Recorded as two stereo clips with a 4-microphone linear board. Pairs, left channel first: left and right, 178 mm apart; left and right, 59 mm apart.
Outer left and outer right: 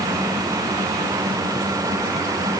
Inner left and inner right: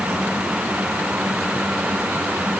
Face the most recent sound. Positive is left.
No sound to turn to.